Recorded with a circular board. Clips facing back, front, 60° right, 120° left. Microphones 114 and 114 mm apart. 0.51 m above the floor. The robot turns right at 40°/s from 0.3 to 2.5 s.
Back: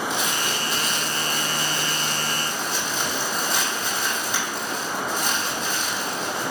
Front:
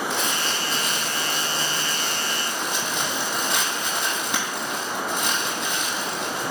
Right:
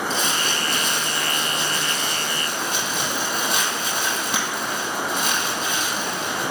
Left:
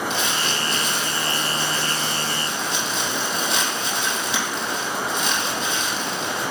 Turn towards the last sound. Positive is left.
turn(degrees=-25)